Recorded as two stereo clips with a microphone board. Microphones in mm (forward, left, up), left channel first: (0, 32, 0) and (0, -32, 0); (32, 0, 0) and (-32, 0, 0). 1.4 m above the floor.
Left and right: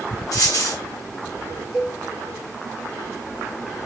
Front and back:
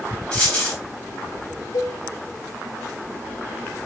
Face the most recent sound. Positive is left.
turn(degrees=0)